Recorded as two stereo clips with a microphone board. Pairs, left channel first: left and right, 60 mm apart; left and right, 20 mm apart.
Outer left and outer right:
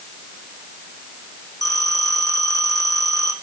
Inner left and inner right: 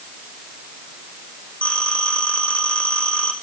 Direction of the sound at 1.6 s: 85° left.